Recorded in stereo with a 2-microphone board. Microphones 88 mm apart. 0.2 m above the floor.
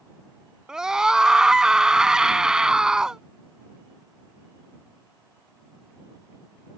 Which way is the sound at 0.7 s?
10° right (ahead or behind).